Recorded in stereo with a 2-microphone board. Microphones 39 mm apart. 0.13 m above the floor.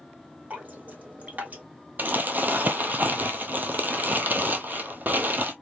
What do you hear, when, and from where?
0.5 s dripping: 40° right (ahead or behind), 1.5 m
2.0 s crumpling: 45° right (ahead or behind), 0.7 m